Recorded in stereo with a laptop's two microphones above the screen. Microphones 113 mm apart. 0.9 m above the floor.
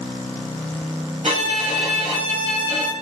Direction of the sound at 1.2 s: 85° right.